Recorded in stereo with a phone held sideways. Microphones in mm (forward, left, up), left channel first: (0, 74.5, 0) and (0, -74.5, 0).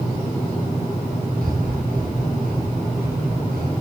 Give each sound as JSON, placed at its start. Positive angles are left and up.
{"t": 1.4, "sound": "breathing", "side_deg": -85, "distance_m": 7.5}